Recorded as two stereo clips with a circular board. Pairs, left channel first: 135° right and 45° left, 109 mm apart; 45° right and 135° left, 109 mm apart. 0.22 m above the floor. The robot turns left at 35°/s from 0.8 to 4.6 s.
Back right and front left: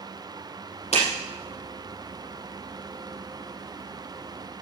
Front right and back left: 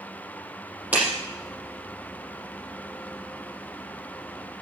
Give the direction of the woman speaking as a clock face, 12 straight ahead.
No woman speaking in this recording.